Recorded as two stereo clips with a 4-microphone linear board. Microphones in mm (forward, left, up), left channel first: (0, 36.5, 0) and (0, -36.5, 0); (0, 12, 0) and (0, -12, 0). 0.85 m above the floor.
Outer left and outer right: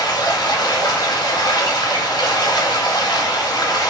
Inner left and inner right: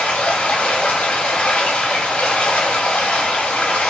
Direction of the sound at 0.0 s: 65° left (ahead or behind).